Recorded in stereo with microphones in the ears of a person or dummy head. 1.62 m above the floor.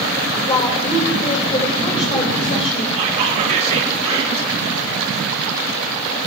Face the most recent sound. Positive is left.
turn(degrees=-30)  # may be behind; listen again after turning